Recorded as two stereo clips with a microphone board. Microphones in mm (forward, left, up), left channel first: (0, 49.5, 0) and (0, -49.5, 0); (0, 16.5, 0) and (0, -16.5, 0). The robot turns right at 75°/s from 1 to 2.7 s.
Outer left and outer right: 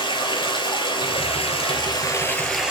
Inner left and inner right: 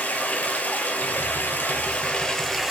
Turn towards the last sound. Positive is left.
turn(degrees=-170)